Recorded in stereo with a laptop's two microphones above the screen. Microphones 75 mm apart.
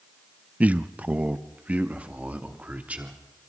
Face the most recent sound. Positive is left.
turn(degrees=-20)  # may be behind; listen again after turning